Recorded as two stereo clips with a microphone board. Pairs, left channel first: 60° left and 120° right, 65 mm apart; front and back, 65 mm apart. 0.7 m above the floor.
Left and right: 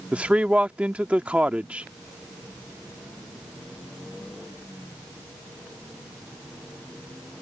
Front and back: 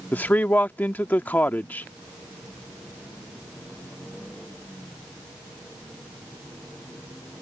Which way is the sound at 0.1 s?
55° right.